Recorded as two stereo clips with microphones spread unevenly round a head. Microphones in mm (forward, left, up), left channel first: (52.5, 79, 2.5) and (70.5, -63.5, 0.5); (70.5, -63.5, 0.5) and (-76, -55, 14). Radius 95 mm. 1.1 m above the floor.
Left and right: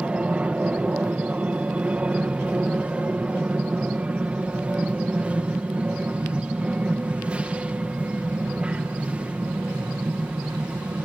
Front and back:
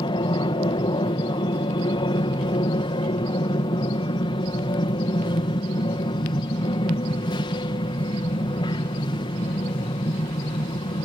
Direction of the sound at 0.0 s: 10° right.